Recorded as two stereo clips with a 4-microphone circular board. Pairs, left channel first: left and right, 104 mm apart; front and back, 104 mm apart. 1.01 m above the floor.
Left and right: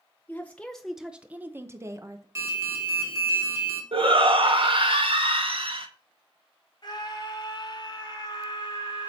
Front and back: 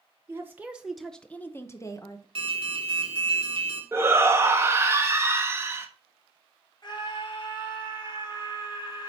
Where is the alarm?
150° right, 2.5 m.